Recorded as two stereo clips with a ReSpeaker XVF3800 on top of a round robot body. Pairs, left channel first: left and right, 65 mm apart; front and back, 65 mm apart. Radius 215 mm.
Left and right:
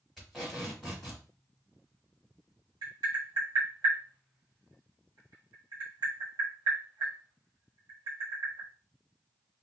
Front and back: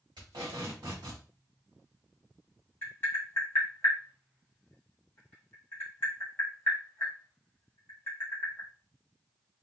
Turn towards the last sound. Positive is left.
turn(degrees=-65)